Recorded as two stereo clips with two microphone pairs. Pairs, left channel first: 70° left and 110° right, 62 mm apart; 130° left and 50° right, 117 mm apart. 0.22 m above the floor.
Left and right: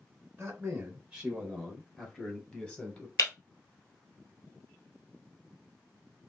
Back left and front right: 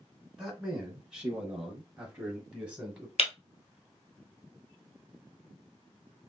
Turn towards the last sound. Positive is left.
turn(degrees=100)